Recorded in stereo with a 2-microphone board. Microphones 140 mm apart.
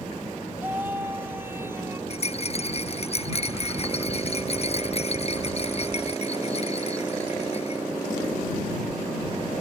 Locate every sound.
0.6 s a scream: 15° right (ahead or behind)
2.1 s a rattle: 45° left (ahead or behind)